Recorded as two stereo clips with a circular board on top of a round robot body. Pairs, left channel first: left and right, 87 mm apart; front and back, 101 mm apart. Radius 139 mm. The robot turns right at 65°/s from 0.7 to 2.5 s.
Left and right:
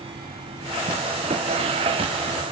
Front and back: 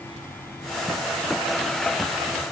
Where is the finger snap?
No finger snap in this recording.